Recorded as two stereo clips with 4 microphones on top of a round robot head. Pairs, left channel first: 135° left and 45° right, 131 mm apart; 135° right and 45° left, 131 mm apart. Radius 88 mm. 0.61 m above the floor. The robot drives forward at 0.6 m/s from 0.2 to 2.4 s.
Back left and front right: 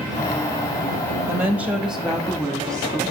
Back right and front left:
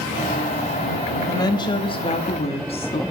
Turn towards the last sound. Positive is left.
turn(degrees=-145)